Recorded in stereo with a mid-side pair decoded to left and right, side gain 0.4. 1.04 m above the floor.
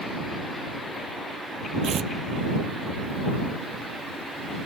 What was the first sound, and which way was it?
Tearing paper, 65° right.